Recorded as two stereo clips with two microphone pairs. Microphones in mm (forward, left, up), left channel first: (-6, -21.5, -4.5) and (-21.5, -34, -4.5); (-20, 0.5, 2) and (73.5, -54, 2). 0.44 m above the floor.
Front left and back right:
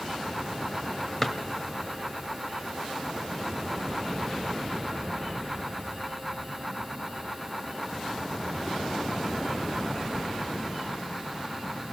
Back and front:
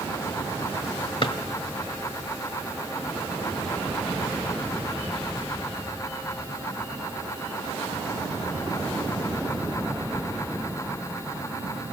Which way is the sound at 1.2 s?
120° left.